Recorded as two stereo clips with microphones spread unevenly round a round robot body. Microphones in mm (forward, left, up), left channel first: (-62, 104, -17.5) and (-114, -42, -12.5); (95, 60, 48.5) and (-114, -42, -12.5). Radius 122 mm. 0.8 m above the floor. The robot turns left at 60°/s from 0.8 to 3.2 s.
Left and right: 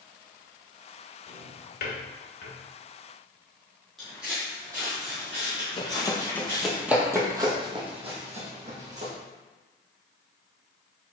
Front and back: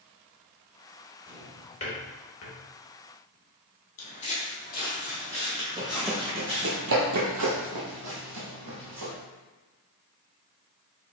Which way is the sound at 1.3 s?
120° left.